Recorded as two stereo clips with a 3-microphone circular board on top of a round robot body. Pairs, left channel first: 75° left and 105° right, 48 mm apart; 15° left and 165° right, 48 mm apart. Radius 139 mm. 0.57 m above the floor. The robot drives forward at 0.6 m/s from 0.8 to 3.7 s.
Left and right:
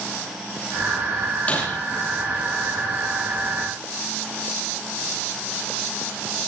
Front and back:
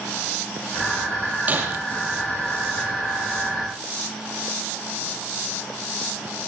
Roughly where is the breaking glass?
Behind left.